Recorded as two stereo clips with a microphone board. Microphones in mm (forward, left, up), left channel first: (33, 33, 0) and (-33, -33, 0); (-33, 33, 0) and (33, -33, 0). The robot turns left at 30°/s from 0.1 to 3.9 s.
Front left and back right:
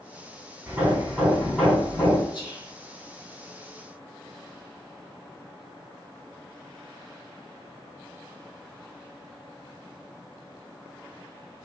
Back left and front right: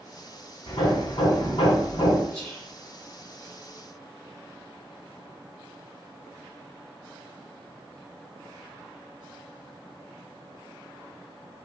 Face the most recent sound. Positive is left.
turn(degrees=10)